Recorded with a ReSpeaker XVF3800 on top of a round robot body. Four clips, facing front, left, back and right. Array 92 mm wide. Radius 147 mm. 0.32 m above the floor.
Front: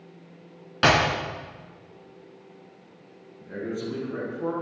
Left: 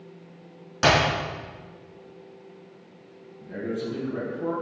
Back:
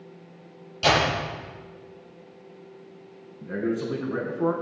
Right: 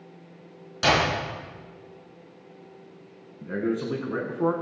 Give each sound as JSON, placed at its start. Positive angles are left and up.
{"t": 0.8, "sound": "a clap", "azimuth_deg": 25, "distance_m": 4.5}
{"t": 3.4, "sound": "a man speaking", "azimuth_deg": -120, "distance_m": 4.0}